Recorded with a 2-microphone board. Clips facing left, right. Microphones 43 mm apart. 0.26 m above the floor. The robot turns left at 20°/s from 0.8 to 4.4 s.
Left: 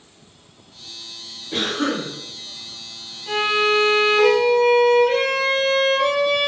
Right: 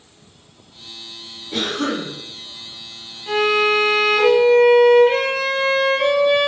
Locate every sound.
1.5 s a cough: 20° left (ahead or behind), 1.3 m; by 2.1 s 25° left (ahead or behind), 1.3 m
3.3 s a violin: 15° right (ahead or behind), 0.6 m; by 6.5 s 30° right (ahead or behind), 0.6 m